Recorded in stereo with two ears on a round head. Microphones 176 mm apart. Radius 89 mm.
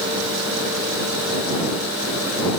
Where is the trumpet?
No trumpet in this recording.